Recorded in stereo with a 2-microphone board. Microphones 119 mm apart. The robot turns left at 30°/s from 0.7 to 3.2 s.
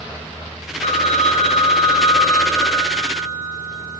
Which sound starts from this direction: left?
A phone ringing, at 0.8 s.